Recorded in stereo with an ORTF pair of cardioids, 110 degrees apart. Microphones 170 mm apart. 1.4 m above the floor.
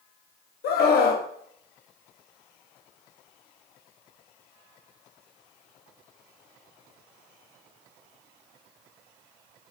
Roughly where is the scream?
Ahead left.